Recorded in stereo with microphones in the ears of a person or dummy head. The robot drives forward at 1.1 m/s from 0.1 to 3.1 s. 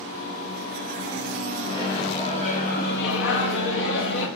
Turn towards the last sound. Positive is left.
turn(degrees=60)  # may be behind; listen again after turning